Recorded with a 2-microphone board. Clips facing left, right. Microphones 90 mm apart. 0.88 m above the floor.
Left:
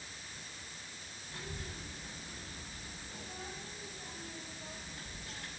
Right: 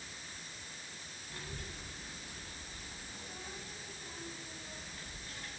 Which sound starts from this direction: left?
A child speaking, at 1.3 s.